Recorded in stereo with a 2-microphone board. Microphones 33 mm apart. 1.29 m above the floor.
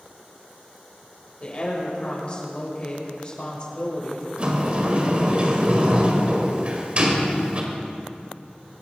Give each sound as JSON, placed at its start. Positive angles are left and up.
{"t": 1.4, "sound": "a woman speaking", "side_deg": 35, "distance_m": 6.0}
{"t": 4.4, "sound": "a sliding door", "side_deg": -35, "distance_m": 2.0}